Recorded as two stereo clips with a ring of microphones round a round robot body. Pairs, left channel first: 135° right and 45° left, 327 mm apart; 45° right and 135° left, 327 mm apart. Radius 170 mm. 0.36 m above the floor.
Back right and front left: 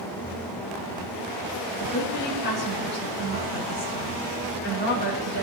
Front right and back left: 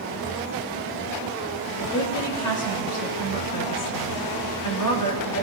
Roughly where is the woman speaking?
Right.